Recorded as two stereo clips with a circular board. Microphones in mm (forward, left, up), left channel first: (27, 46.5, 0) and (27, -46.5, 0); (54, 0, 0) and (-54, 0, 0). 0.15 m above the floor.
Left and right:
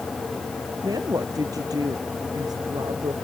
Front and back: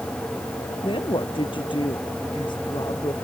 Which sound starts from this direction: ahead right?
A woman speaking, at 0.8 s.